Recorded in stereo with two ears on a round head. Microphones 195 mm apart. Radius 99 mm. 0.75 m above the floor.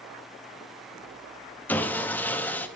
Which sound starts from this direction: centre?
Sawing, at 1.7 s.